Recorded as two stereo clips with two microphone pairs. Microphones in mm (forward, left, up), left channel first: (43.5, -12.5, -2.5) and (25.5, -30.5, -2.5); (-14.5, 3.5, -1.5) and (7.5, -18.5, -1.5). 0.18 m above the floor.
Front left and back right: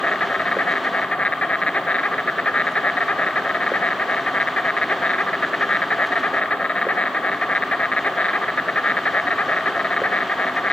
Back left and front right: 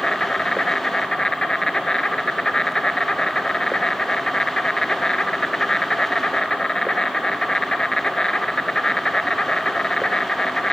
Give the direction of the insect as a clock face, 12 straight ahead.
10 o'clock.